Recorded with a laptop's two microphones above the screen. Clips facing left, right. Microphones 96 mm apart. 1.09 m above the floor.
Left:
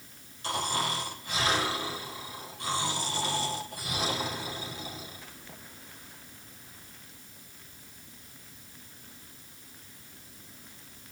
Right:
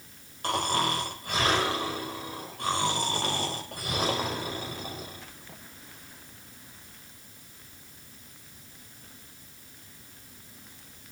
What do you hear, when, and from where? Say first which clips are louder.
0.4 s snoring: right 4 dB; 55° right (ahead or behind), 5.5 m